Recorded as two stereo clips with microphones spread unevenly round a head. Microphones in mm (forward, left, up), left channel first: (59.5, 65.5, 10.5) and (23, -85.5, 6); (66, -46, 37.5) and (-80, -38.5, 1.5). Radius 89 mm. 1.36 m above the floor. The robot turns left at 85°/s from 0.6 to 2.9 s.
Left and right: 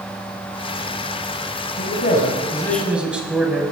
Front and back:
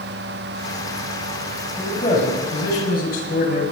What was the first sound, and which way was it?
A man speaking, 75° left.